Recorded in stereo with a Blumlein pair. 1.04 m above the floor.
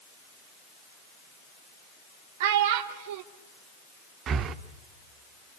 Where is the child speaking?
50° right, 1.3 m.